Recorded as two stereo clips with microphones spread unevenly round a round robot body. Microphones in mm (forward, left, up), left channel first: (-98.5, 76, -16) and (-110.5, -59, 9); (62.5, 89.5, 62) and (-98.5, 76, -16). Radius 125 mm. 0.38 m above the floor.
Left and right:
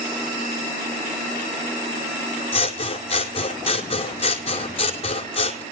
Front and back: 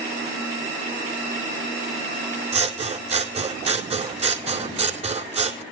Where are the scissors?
130° left, 2 m.